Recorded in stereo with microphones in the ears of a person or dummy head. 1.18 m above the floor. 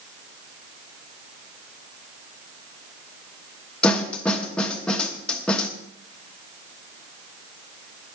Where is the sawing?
I don't hear sawing.